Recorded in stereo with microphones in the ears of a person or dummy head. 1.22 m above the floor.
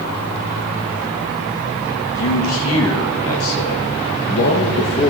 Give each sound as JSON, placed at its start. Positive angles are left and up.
{"t": 2.1, "sound": "a man speaking", "side_deg": 70, "distance_m": 2.0}